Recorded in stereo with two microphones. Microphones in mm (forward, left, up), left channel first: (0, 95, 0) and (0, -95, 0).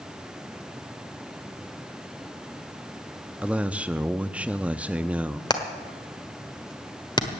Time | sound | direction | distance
3.4 | a man speaking | 5° right (ahead or behind) | 0.5 m
5.5 | hammering | 20° left (ahead or behind) | 1.5 m